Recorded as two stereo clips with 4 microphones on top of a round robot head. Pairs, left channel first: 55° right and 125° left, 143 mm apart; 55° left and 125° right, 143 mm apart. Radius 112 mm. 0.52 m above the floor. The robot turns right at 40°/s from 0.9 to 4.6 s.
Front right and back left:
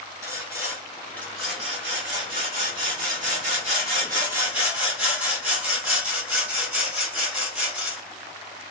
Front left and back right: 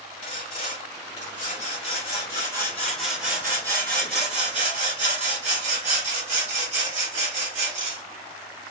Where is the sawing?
60° left, 3 m; by 8.0 s 155° right, 3 m.